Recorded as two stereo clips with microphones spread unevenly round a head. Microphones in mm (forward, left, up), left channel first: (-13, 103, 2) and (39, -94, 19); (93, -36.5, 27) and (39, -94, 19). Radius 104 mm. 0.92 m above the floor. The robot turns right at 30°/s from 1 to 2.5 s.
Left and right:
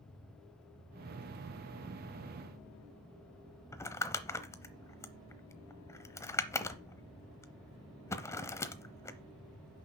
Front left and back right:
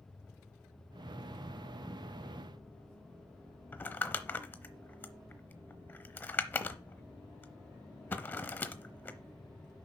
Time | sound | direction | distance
3.7 | crumpling | 30° left | 0.8 m